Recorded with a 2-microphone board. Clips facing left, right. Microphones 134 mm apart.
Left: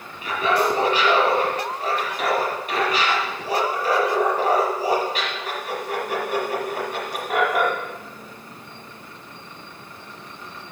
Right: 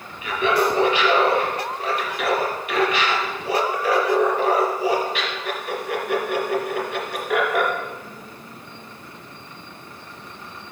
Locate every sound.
0.2 s laughter: 40° left (ahead or behind), 2.5 m